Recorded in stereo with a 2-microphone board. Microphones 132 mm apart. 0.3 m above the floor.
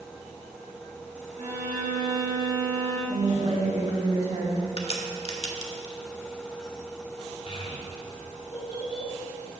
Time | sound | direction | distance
1.4 | a violin | 55° right (ahead or behind) | 2.5 m
3.1 | a woman speaking | 55° right (ahead or behind) | 2.5 m
4.8 | a crack | 50° left (ahead or behind) | 0.9 m
7.5 | a child speaking | 45° left (ahead or behind) | 1.3 m